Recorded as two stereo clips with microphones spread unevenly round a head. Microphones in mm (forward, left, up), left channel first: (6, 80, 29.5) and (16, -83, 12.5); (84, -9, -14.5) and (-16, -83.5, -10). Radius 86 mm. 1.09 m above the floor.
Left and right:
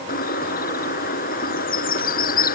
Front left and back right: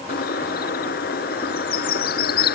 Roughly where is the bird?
Ahead left.